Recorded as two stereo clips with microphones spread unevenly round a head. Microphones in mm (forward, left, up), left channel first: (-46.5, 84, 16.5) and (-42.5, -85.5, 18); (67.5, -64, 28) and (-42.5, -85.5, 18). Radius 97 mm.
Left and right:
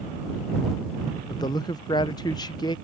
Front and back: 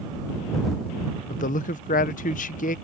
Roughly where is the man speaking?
Ahead.